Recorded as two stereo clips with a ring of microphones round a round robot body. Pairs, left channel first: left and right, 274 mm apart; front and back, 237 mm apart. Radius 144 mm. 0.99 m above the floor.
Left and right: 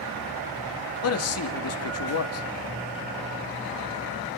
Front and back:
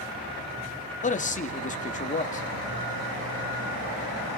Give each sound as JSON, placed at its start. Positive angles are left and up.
{"t": 1.0, "sound": "a man speaking", "azimuth_deg": 60, "distance_m": 2.0}